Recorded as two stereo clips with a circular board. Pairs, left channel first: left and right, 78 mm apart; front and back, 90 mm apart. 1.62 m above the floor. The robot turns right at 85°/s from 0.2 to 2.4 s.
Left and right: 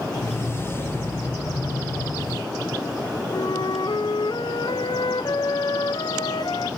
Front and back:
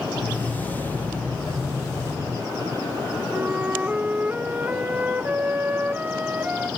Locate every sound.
3.3 s a flute: 105° left, 1.2 m